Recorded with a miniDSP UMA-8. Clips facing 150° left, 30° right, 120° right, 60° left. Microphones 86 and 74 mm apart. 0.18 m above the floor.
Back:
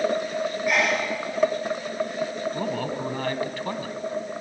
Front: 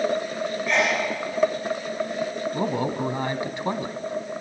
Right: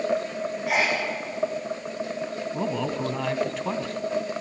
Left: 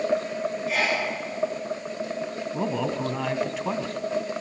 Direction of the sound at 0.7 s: 130° right.